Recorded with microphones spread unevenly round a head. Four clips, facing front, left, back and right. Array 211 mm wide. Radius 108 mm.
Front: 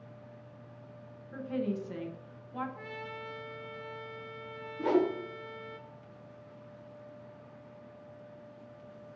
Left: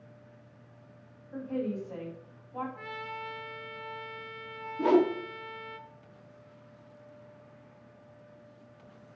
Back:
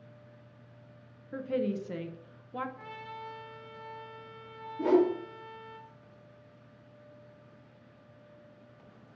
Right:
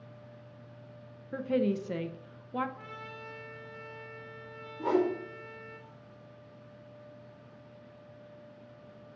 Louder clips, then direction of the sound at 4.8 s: Left 4 dB, back 3 dB; 120° left.